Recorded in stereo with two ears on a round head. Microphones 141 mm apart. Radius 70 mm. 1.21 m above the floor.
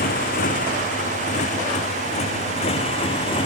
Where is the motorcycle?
60° left (ahead or behind); by 3.5 s 30° left (ahead or behind).